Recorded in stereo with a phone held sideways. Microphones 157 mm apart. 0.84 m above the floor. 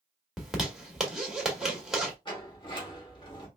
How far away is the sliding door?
About 2.0 m.